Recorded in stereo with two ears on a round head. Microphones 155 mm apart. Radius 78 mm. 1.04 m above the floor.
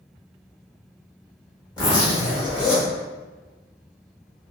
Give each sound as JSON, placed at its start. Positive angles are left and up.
{"t": 1.8, "sound": "a zipper", "side_deg": 25, "distance_m": 1.2}